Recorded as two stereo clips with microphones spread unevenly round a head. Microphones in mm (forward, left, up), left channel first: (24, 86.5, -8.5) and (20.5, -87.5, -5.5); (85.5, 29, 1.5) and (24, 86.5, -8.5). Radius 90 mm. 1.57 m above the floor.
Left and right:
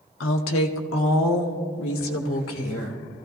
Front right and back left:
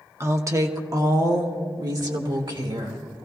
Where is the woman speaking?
80° left, 1.2 m; by 3.0 s 110° left, 2.5 m.